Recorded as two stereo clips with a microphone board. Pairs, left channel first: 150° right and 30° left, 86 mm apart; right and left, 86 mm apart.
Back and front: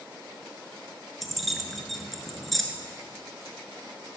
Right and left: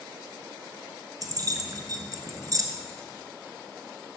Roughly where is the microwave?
No microwave in this recording.